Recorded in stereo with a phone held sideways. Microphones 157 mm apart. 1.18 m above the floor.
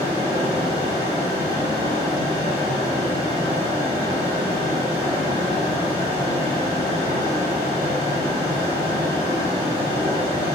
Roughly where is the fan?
Right.